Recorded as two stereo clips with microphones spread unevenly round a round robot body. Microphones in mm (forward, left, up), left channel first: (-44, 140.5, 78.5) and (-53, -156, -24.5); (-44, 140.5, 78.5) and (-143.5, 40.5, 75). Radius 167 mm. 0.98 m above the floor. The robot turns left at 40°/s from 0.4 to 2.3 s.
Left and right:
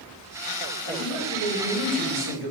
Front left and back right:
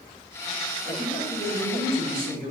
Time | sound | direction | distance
0.8 | a man speaking | 85° right | 1.9 m